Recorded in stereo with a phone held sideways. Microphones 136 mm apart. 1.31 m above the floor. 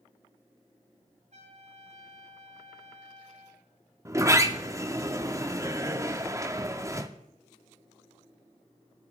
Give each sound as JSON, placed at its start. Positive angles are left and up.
{"t": 1.3, "sound": "a trumpet", "side_deg": -65, "distance_m": 5.5}
{"t": 4.0, "sound": "a sliding door", "side_deg": -20, "distance_m": 0.9}